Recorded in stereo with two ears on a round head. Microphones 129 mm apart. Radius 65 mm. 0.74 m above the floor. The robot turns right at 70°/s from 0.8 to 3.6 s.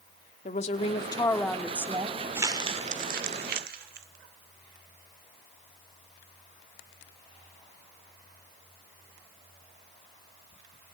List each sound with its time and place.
0.5 s a woman speaking: 125° left, 1.7 m; by 2.2 s 135° right, 1.7 m
2.4 s crumpling: 15° right (ahead or behind), 1.9 m; by 4.1 s 70° right (ahead or behind), 1.9 m